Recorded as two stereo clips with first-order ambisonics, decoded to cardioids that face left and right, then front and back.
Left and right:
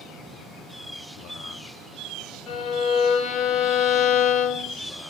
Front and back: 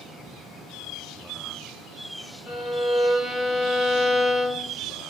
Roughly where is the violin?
Ahead left.